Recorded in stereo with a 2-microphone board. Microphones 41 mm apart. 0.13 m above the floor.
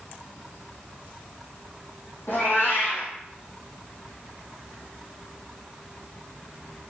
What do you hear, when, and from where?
2.3 s a cat meowing: 70° left (ahead or behind), 3 m